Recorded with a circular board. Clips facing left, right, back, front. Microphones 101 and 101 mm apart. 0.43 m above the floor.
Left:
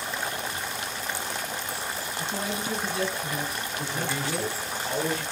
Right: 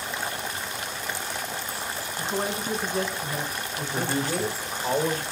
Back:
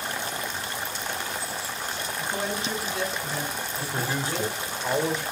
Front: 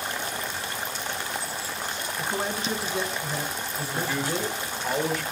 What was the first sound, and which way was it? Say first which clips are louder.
A man speaking: right 4 dB, front 1 dB; 60° right.